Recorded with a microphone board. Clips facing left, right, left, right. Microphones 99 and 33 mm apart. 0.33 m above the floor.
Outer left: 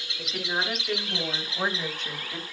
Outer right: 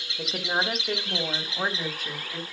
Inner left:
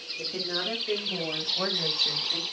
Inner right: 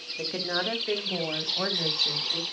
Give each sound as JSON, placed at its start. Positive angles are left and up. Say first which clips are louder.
{"t": 0.2, "sound": "a woman speaking", "louder": "outer right 2 dB, inner right 2 dB", "side_deg": -45, "distance_m": 2.5}